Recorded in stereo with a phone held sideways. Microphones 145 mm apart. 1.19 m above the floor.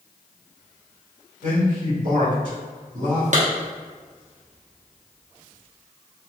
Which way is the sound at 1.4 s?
60° right (ahead or behind).